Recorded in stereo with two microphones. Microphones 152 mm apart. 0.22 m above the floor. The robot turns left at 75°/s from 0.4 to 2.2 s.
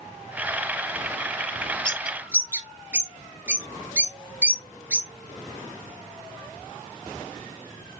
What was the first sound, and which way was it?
A bird, 10° left (ahead or behind).